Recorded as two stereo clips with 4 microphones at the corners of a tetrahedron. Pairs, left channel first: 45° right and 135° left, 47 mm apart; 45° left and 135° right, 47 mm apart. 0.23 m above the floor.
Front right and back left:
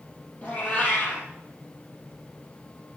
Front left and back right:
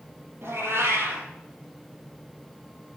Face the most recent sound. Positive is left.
turn(degrees=-105)